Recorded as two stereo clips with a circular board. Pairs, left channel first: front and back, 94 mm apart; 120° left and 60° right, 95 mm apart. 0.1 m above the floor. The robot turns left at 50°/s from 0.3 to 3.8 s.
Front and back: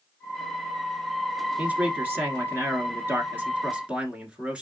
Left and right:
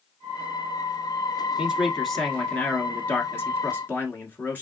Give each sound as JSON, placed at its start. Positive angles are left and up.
{"t": 1.6, "sound": "a man speaking", "azimuth_deg": -130, "distance_m": 1.1}